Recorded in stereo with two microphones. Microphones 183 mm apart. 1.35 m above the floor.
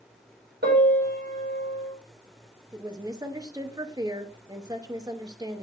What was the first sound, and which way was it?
A piano, 85° right.